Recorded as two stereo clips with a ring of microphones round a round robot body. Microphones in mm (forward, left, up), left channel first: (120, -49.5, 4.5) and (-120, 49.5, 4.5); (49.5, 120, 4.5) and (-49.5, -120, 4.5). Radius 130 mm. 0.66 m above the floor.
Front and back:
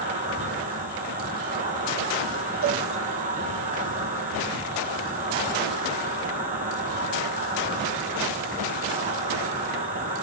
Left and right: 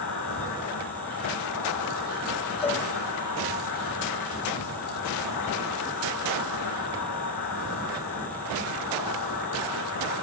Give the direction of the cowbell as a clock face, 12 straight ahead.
8 o'clock.